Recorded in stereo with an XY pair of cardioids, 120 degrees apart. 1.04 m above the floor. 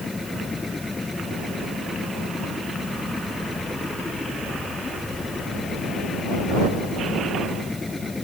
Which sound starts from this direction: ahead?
A machine running, at 0.0 s.